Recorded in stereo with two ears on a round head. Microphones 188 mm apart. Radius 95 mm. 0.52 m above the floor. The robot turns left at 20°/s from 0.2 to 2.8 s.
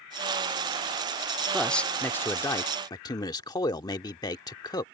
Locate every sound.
1.5 s a man speaking: centre (ahead or behind); by 4.8 s 20° left (ahead or behind)